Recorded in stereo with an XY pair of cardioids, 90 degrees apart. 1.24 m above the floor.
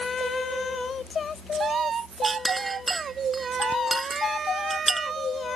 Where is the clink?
20° right.